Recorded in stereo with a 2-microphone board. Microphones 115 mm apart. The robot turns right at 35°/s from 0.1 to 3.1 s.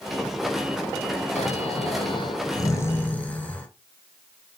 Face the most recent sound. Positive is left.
turn(degrees=165)